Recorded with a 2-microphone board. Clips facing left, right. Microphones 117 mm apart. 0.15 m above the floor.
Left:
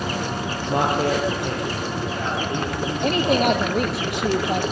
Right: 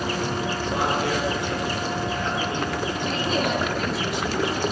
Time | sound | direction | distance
0.7 | a man speaking | 55° left (ahead or behind) | 4.5 m
3.0 | a woman speaking | 70° left (ahead or behind) | 4 m